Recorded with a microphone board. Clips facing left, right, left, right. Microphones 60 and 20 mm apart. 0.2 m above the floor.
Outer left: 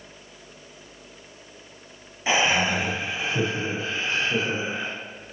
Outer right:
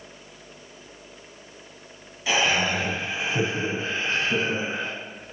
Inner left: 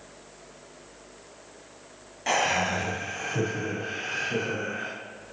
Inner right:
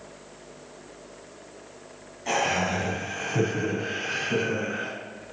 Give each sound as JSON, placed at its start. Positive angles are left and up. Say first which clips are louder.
{"t": 2.3, "sound": "laughter", "louder": "outer left 1 dB, even", "side_deg": 30, "distance_m": 1.4}